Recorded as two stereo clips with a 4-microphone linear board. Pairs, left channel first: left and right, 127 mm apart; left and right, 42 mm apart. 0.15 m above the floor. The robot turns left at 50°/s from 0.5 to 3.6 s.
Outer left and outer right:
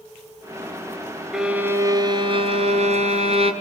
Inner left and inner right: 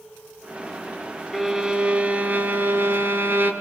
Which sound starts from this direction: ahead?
A violin, at 1.3 s.